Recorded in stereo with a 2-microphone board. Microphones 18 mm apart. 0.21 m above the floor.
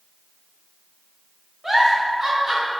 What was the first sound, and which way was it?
A giggle, 25° right (ahead or behind).